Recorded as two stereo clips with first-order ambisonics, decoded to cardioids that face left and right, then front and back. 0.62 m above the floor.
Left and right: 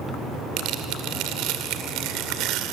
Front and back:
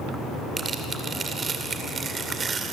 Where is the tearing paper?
115° right, 2 m.